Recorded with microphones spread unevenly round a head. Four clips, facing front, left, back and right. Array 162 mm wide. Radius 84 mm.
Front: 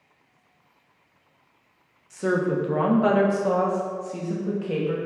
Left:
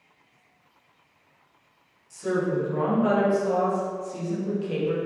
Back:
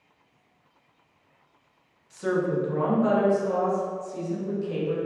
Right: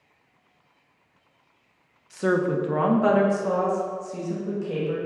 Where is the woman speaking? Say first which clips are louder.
Right 3 dB, front 2 dB; 55° right, 1.4 m; by 5.0 s 5° left, 2.5 m.